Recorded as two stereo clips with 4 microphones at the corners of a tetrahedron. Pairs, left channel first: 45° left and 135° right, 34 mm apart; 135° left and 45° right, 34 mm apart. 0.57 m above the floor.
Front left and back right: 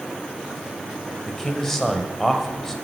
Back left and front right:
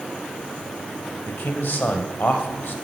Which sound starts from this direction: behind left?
A man speaking, at 1.3 s.